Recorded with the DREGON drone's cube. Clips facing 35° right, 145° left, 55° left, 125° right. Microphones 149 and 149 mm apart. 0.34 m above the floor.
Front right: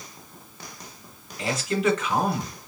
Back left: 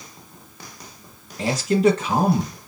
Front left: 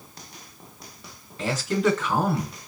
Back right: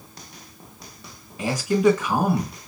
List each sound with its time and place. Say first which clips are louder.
1.4 s a man speaking: back left 6 dB, back right 4 dB; 170° left, 1.9 m